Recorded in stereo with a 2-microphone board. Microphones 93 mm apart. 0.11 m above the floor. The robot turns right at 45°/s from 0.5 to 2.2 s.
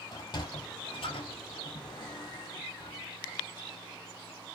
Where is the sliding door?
50° left (ahead or behind), 0.8 m.